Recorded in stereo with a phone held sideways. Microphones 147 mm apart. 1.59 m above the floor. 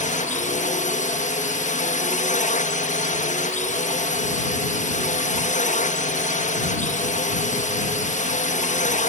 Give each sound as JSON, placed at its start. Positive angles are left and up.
{"t": 0.0, "sound": "a drone", "side_deg": 65}